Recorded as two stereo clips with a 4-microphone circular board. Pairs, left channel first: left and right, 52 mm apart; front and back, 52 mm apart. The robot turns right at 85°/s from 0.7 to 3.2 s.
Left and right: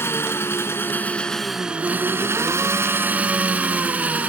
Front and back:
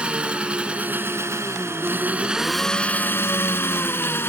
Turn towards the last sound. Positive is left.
turn(degrees=-35)